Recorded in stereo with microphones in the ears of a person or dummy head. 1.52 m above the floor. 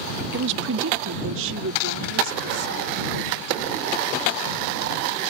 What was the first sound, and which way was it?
A woman speaking, 45° right (ahead or behind).